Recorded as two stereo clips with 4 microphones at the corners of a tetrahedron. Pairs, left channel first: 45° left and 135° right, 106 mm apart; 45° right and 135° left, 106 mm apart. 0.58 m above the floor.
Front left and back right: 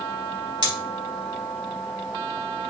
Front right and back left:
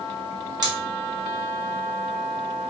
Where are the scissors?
Straight behind, 1.6 m.